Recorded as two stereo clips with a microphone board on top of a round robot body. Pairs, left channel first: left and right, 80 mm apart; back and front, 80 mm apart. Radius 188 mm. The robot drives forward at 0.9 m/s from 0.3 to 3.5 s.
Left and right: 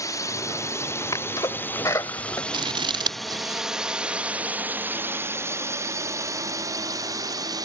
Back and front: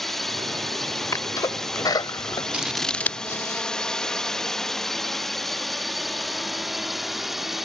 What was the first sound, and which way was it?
A drone, 95° left.